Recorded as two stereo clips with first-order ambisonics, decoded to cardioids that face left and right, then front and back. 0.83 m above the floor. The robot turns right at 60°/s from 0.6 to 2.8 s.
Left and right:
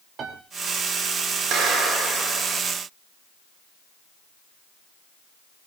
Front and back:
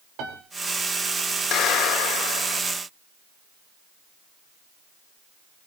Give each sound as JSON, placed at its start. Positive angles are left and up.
{"t": 0.2, "sound": "a piano", "azimuth_deg": -150, "distance_m": 3.0}
{"t": 1.5, "sound": "a clap", "azimuth_deg": -45, "distance_m": 3.5}